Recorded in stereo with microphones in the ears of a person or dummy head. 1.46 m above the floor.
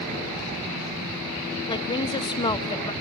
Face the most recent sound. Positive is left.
turn(degrees=15)  # may be behind; listen again after turning